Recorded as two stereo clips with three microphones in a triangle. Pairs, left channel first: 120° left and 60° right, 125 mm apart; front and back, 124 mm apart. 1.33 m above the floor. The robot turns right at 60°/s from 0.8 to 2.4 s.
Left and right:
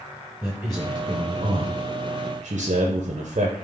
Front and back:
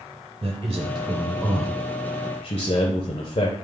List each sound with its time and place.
0.4 s a man speaking: 130° right, 0.6 m; by 3.5 s 35° right, 0.6 m